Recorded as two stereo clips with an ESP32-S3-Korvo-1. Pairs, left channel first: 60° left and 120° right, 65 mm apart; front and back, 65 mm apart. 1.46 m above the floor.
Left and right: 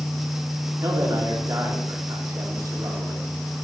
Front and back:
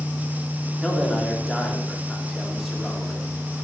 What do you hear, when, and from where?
0.8 s a man speaking: 90° right, 3 m